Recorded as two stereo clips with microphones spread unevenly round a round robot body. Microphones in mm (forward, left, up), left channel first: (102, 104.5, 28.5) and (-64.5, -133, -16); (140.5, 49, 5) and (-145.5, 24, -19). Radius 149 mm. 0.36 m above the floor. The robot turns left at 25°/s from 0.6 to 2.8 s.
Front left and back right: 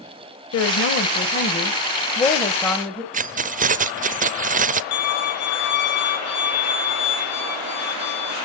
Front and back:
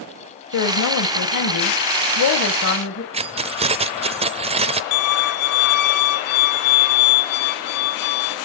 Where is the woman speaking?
15° left, 2 m; by 3.0 s 40° right, 2 m.